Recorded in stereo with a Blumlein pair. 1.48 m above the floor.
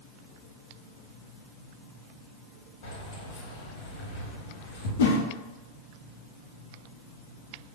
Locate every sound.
2.8 s keys jangling: 50° left, 1.3 m
5.0 s a whoosh: 60° left, 0.7 m